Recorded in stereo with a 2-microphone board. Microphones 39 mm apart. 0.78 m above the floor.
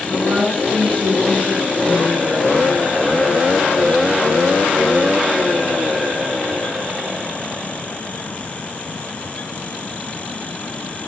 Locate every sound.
0.1 s a woman speaking: 50° right (ahead or behind), 3.5 m